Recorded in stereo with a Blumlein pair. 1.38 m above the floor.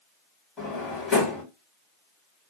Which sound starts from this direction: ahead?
A drawer, at 0.6 s.